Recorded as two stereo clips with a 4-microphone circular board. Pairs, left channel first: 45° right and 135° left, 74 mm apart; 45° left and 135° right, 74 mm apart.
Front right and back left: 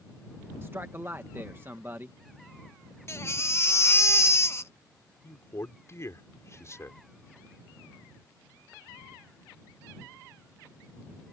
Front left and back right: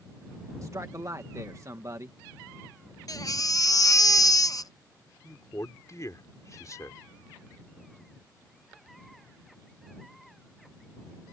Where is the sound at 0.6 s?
170° right.